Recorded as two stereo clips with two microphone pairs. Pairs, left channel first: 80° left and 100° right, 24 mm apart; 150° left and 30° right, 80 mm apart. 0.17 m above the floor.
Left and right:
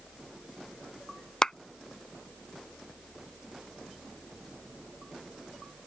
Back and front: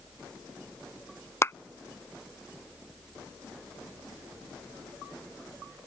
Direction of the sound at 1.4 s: 120° left.